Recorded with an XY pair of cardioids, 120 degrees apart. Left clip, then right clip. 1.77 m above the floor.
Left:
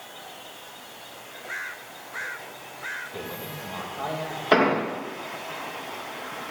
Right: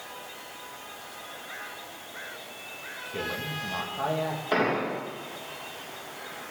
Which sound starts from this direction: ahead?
A man speaking, at 3.0 s.